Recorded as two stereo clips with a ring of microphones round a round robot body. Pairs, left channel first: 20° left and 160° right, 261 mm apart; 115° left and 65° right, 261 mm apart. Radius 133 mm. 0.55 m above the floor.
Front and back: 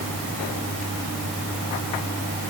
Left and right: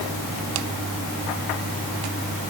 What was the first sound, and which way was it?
Only background noise.